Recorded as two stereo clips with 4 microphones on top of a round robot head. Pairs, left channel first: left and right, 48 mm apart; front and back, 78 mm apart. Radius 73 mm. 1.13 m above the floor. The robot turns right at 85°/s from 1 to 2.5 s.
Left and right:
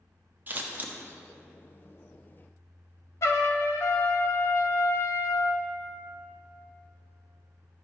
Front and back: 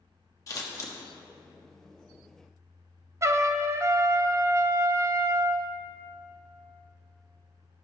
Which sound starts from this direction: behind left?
A trumpet, at 3.2 s.